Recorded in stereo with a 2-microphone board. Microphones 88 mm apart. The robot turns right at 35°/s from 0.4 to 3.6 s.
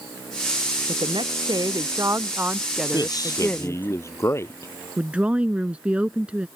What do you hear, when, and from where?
0.9 s a woman speaking: 75° right; by 3.9 s 20° left
2.9 s a man speaking: 50° left (ahead or behind); by 4.7 s 30° left (ahead or behind)
5.0 s a woman speaking: 15° right (ahead or behind)